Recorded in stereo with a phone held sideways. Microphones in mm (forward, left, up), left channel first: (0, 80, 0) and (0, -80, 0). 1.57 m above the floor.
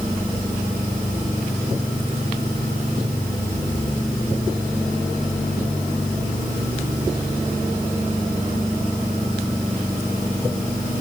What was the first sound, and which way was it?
Only background noise.